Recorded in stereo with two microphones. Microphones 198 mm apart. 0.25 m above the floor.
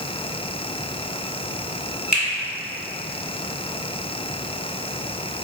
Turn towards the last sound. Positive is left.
turn(degrees=40)  # may be behind; listen again after turning